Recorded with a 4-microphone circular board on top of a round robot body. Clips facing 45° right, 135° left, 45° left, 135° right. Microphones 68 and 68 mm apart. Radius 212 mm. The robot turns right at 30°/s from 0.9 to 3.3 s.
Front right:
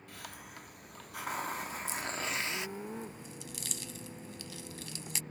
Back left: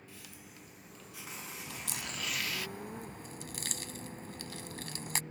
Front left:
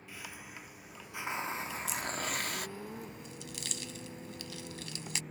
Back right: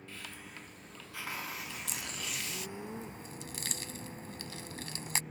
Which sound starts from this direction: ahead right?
A hiss, at 0.1 s.